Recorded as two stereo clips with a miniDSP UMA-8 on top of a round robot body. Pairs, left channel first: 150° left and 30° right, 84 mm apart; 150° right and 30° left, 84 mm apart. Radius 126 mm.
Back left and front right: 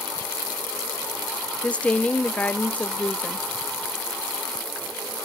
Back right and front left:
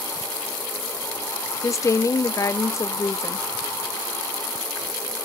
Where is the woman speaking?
145° right, 0.9 m.